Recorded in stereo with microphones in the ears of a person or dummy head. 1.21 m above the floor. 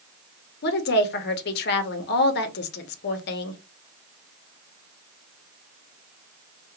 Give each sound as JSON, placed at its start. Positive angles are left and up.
{"t": 0.6, "sound": "a woman speaking", "side_deg": 50, "distance_m": 0.6}